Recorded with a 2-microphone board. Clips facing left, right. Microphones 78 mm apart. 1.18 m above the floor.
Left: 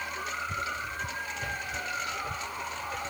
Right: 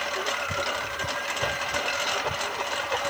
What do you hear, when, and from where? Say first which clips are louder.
0.0 s a lawn mower: right 6 dB; 65° right (ahead or behind)